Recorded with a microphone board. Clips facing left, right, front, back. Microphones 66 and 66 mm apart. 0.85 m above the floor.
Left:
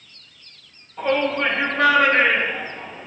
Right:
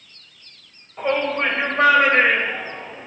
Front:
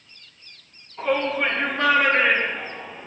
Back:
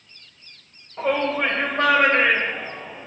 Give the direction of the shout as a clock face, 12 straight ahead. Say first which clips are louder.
Left 1 dB, back 1 dB; 5 o'clock.